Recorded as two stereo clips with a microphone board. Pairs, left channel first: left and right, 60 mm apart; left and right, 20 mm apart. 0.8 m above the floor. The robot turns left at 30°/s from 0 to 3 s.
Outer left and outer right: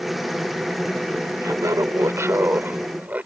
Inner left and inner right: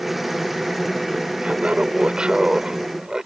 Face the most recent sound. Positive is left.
turn(degrees=-150)